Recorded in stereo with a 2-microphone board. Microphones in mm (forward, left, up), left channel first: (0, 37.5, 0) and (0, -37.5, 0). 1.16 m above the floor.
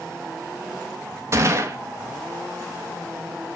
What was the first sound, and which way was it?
A gunshot, 40° right (ahead or behind).